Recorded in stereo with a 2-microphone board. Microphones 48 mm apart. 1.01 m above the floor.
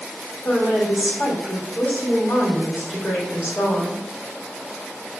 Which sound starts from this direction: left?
A woman speaking, at 0.5 s.